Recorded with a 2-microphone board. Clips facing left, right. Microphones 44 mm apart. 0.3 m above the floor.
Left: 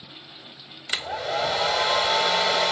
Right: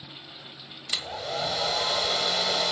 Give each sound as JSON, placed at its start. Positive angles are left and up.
{"t": 0.9, "sound": "a hair dryer", "side_deg": 30, "distance_m": 0.9}